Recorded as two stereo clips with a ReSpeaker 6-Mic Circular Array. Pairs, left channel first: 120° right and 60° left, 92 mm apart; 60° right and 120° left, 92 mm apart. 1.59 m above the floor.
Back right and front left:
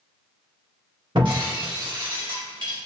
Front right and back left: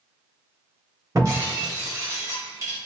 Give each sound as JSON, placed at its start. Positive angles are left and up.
{"t": 1.1, "sound": "breaking glass", "azimuth_deg": 70, "distance_m": 1.4}